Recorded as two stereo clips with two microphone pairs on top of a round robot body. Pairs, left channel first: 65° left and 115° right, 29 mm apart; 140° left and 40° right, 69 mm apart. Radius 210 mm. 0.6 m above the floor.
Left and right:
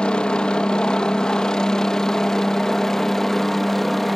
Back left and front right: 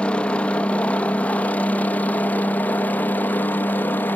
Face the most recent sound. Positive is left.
turn(degrees=155)